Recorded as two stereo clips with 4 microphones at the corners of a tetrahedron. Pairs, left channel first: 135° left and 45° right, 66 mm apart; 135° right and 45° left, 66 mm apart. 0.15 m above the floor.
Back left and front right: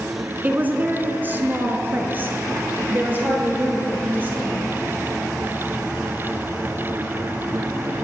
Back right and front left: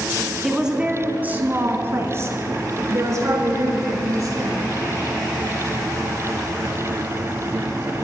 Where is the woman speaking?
40° right, 1.1 m; by 4.7 s 15° left, 3 m.